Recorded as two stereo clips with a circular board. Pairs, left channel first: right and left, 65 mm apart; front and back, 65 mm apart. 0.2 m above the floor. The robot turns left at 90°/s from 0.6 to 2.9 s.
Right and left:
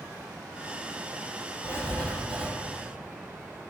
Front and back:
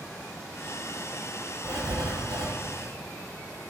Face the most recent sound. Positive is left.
turn(degrees=120)